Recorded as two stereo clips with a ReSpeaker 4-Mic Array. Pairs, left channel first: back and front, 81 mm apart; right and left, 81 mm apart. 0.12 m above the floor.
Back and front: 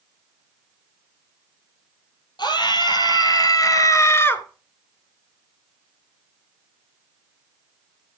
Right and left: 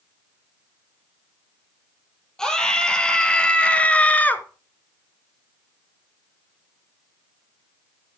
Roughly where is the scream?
Behind.